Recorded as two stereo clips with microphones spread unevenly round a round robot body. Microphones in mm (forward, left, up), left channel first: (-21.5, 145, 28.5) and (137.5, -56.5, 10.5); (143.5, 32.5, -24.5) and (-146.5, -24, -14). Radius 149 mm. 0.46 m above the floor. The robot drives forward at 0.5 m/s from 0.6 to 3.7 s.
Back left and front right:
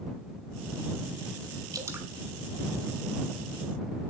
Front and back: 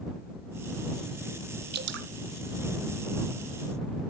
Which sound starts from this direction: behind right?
Dripping, at 1.7 s.